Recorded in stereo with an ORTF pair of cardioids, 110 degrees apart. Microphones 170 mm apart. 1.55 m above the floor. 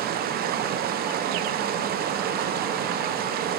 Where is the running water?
65° right, 0.8 m.